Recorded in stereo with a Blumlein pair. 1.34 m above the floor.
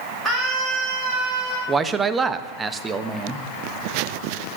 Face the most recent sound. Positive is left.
turn(degrees=-15)